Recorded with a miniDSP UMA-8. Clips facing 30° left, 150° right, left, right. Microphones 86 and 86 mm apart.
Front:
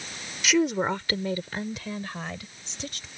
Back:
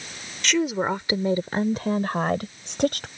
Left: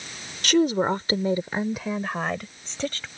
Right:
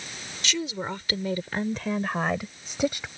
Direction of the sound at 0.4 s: 115° left.